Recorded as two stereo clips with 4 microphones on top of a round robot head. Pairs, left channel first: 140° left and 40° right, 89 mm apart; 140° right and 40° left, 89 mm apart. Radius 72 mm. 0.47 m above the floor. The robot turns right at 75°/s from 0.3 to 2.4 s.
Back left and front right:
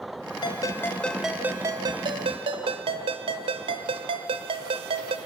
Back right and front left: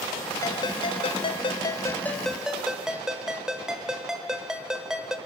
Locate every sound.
0.4 s a ringtone: 170° left, 1.3 m; by 5.2 s 40° right, 1.3 m